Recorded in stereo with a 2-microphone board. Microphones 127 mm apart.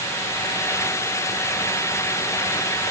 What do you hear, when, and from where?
Only background noise.